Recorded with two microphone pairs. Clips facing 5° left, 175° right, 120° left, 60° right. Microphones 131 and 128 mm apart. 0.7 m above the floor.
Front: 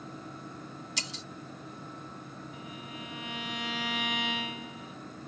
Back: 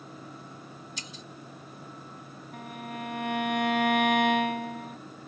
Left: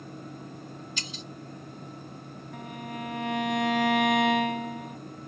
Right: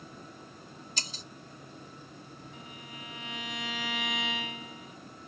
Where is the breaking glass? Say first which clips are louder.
Front 2 dB, left 4 dB; 10° right.